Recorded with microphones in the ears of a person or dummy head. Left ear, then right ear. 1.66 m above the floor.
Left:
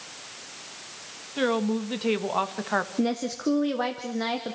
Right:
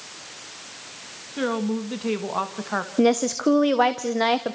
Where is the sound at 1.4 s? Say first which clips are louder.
Left 1 dB; 15° left (ahead or behind), 1.8 m.